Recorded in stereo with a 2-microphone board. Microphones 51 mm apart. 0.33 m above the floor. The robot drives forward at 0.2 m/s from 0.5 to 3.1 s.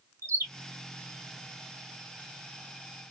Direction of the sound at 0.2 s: 80° right.